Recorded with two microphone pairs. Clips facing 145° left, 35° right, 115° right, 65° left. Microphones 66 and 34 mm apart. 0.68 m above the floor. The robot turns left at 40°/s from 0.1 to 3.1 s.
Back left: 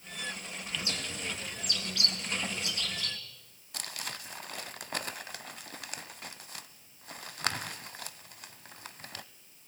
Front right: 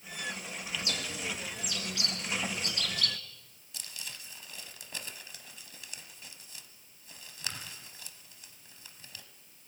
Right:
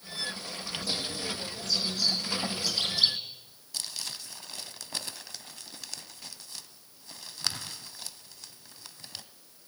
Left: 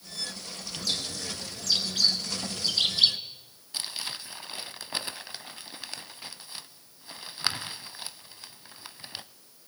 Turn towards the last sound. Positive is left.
turn(degrees=125)